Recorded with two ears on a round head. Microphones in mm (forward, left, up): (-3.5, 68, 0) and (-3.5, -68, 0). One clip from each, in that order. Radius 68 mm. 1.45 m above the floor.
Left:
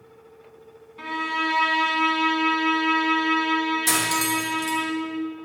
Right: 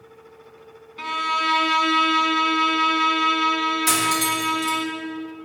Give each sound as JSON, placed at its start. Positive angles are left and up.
{"t": 1.0, "sound": "a violin", "side_deg": -75, "distance_m": 1.9}
{"t": 3.9, "sound": "cutlery clinking", "side_deg": 5, "distance_m": 3.0}